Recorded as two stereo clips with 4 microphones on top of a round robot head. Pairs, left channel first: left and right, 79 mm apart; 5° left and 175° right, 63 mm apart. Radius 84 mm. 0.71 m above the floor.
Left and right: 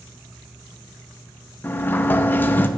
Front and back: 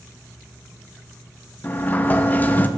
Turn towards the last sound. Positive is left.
turn(degrees=45)